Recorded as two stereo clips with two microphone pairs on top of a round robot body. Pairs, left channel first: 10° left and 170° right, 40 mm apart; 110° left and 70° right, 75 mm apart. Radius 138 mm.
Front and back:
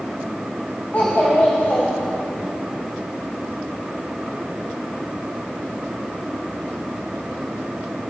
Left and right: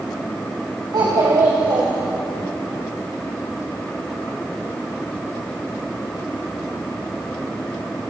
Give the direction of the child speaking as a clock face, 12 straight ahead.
1 o'clock.